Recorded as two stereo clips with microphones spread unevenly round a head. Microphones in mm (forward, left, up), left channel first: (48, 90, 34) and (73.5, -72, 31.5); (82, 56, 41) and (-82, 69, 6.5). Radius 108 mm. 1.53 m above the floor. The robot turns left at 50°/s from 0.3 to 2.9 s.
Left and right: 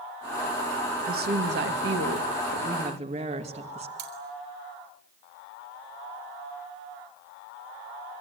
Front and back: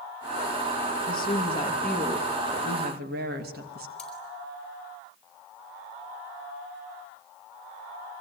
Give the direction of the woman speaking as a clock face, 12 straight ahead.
2 o'clock.